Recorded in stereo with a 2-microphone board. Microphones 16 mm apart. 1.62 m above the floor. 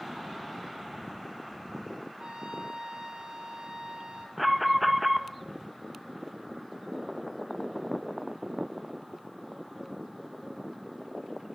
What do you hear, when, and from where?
2.2 s a trumpet: 65° right (ahead or behind), 1.9 m
4.4 s an alarm: 5° right (ahead or behind), 1.2 m